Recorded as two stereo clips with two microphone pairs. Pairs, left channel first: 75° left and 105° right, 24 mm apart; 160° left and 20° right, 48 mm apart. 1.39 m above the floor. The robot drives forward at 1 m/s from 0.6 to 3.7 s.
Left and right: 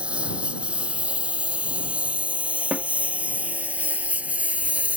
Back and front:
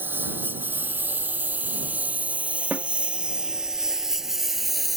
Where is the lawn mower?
70° right; by 5.0 s 110° right.